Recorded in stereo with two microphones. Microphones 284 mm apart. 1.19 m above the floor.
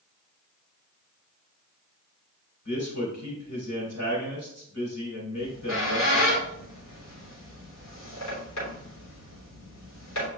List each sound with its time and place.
2.6 s a man speaking: 70° left (ahead or behind), 3.5 m
5.4 s a squeak: 65° left (ahead or behind), 3 m